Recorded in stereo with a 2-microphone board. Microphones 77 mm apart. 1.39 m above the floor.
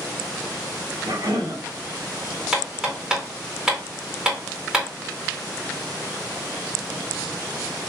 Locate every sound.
1.0 s a cough: 55° right (ahead or behind), 1.8 m
2.5 s hammering: 10° right (ahead or behind), 2.5 m